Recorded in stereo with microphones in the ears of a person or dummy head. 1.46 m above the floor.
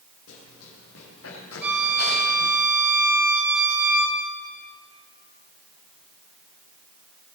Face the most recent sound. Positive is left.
turn(degrees=-5)  # may be behind; listen again after turning